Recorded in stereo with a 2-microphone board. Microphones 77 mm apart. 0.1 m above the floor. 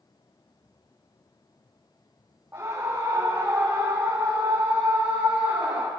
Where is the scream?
25° right (ahead or behind), 6.5 m; by 5.9 s 5° right (ahead or behind), 4.5 m.